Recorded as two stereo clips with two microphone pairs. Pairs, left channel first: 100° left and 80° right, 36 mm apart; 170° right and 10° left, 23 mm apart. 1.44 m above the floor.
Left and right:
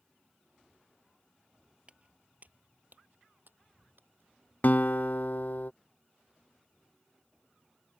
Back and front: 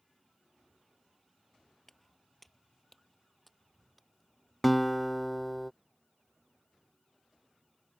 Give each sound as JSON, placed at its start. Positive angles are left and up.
{"t": 1.9, "sound": "footsteps", "azimuth_deg": -100}
{"t": 4.6, "sound": "a guitar", "azimuth_deg": 100}